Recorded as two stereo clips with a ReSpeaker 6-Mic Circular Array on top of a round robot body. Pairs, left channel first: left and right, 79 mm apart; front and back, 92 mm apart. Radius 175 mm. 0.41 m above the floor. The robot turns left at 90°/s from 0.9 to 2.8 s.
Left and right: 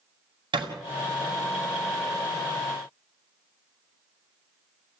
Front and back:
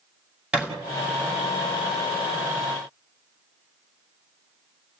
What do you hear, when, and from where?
0.5 s a thud: 100° right, 2 m